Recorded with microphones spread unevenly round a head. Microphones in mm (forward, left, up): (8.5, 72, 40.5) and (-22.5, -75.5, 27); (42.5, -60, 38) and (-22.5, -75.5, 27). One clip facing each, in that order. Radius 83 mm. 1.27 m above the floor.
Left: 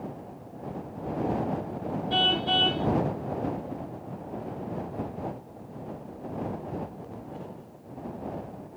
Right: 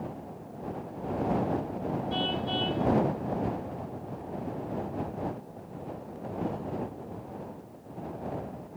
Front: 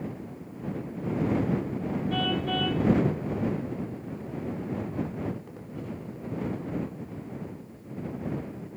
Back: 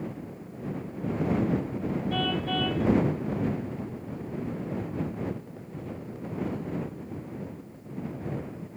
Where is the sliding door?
No sliding door in this recording.